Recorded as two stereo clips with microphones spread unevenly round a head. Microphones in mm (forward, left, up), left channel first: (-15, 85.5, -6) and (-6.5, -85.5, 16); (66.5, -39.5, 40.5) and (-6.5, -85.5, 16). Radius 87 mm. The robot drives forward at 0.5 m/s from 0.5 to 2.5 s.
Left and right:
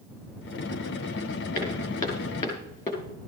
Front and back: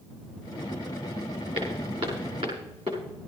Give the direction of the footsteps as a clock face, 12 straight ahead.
7 o'clock.